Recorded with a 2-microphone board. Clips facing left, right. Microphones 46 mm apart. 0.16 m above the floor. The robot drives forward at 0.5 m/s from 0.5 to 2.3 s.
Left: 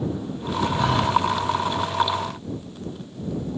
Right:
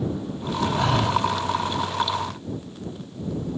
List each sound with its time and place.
0.7 s breathing: 75° right (ahead or behind), 5 m; by 1.2 s 70° right (ahead or behind), 5 m